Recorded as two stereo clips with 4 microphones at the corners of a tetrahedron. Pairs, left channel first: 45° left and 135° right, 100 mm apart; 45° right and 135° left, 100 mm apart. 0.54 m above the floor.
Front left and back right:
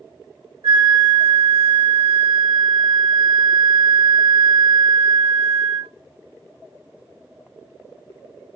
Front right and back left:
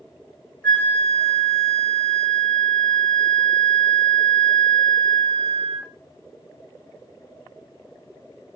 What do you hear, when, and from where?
0.6 s a flute: 125° right, 0.6 m